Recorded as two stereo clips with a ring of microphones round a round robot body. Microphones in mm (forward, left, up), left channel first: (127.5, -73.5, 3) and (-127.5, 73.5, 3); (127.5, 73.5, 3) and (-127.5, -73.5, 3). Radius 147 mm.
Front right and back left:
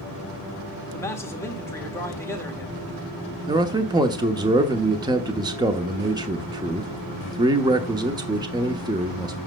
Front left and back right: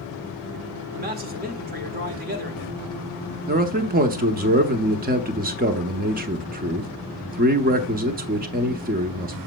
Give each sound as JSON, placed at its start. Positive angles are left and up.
{"t": 0.9, "sound": "a man speaking", "azimuth_deg": -105, "distance_m": 1.6}
{"t": 3.5, "sound": "a man speaking", "azimuth_deg": -150, "distance_m": 0.8}